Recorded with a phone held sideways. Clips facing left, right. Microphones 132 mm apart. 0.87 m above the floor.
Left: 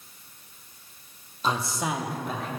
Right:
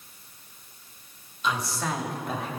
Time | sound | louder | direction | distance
1.4 | a man speaking | left 1 dB | 40° left (ahead or behind) | 1.1 m